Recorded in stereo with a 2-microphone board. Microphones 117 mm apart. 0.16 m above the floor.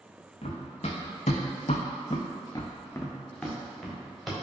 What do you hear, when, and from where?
0.4 s running footsteps: 60° left (ahead or behind), 0.9 m; by 4.3 s 5° right (ahead or behind), 1.3 m